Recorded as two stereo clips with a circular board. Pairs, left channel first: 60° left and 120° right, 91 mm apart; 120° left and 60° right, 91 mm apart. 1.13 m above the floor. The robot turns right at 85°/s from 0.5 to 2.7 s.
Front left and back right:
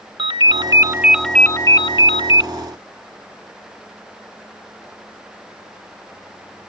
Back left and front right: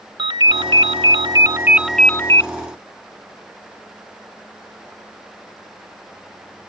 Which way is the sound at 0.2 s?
90° right.